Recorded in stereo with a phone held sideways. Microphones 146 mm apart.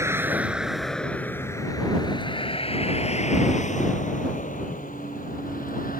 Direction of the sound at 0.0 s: 15° right (ahead or behind).